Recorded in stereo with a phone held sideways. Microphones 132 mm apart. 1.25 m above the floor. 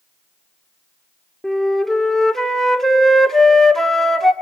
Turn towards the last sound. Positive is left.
turn(degrees=0)  # may be behind; listen again after turning